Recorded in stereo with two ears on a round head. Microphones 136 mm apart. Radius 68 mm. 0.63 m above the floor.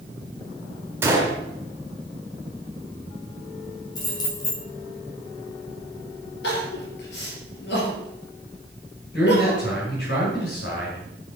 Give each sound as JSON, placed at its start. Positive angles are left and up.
{"t": 1.0, "sound": "a gunshot", "side_deg": -15, "distance_m": 2.5}
{"t": 4.0, "sound": "keys jangling", "side_deg": 25, "distance_m": 3.0}
{"t": 6.4, "sound": "crying", "side_deg": 80, "distance_m": 4.5}
{"t": 9.1, "sound": "a man speaking", "side_deg": 85, "distance_m": 5.5}